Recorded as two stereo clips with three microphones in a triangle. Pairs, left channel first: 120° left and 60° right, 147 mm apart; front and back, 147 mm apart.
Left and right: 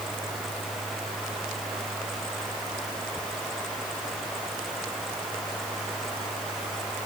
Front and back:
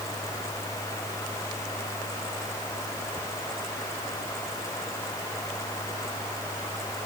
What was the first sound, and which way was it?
Only background noise.